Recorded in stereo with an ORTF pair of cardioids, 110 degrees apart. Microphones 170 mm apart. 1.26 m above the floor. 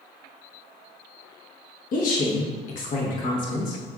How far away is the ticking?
No ticking in this recording.